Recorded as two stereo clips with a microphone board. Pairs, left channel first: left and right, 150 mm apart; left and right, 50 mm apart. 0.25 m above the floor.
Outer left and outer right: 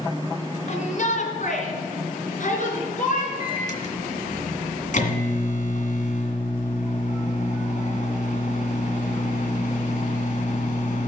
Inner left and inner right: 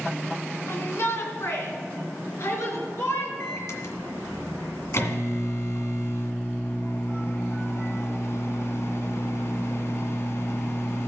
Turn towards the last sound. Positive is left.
turn(degrees=60)  # may be behind; listen again after turning